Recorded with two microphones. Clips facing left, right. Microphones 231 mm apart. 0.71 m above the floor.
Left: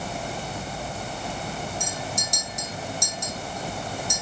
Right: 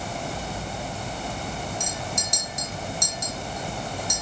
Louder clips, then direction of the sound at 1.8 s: Even; 70° right (ahead or behind).